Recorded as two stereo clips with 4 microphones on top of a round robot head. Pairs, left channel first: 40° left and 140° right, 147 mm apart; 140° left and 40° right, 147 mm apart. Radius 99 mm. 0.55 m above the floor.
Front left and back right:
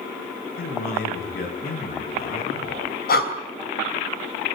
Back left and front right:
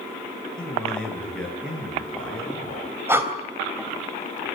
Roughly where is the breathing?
Ahead left.